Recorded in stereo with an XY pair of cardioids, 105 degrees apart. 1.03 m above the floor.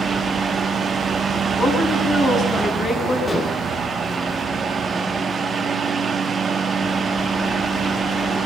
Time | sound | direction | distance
0.0 | a fan | 40° right | 1.5 m
1.6 | a woman speaking | 35° left | 7.5 m
3.3 | dishes clattering | 30° left | 3 m